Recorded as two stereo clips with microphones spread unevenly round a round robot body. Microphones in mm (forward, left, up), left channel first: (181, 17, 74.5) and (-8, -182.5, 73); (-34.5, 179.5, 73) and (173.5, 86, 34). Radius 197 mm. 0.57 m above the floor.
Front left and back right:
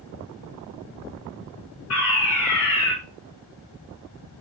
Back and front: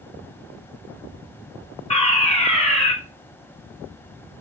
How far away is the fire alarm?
About 4.5 m.